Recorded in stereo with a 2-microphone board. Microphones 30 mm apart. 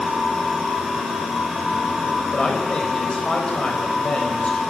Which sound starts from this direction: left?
A man speaking, at 2.3 s.